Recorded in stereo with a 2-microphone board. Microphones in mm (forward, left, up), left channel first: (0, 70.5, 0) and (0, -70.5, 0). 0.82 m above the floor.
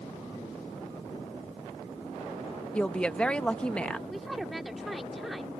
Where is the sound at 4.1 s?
Centre (ahead or behind).